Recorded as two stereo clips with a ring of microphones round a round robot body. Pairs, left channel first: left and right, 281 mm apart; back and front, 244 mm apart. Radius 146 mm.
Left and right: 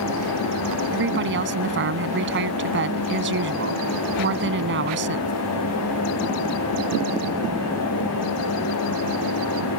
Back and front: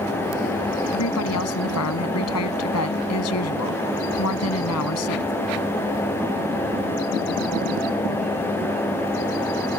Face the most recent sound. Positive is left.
turn(degrees=-140)